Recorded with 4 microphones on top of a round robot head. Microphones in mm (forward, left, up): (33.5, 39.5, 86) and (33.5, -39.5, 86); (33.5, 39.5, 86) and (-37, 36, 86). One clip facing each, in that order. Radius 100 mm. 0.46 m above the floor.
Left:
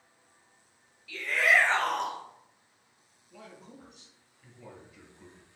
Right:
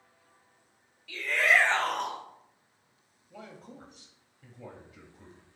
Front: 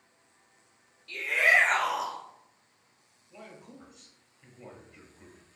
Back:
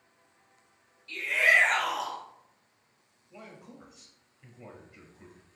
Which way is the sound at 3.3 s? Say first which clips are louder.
Right 2 dB, even; 95° right.